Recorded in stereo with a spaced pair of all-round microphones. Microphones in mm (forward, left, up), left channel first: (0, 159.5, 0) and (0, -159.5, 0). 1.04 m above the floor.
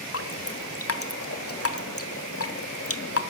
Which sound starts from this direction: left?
Dripping, at 0.1 s.